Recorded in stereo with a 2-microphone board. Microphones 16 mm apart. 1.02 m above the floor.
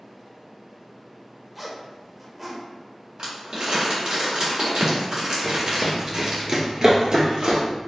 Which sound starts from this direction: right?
Crumpling, at 3.2 s.